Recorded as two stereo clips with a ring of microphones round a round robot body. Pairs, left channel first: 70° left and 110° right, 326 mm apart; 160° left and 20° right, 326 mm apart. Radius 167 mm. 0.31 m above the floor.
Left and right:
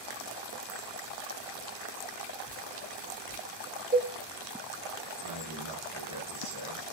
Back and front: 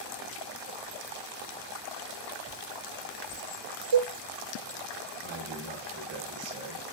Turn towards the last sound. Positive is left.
turn(degrees=-80)